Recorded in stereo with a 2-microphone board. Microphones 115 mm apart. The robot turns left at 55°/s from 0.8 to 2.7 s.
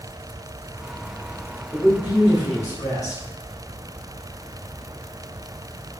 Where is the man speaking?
160° left, 1.6 m; by 3.2 s 105° left, 1.6 m.